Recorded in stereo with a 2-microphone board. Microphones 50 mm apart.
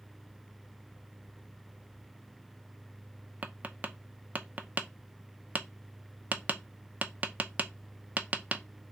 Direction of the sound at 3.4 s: 30° right (ahead or behind).